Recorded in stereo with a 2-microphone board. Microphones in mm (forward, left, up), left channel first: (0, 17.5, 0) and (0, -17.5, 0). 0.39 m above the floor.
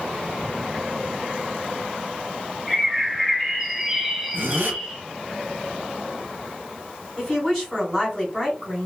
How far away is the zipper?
About 0.7 m.